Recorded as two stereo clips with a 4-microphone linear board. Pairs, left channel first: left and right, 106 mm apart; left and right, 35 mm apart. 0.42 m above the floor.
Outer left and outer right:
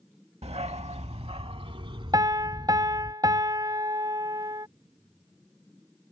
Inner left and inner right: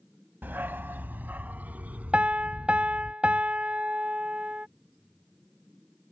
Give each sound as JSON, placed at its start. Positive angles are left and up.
{"t": 0.4, "sound": "a dog barking", "side_deg": -75}
{"t": 2.1, "sound": "a piano", "side_deg": -40}